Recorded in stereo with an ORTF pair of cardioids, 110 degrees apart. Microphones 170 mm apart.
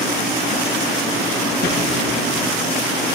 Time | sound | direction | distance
1.6 | a thud | 65° left | 9.5 m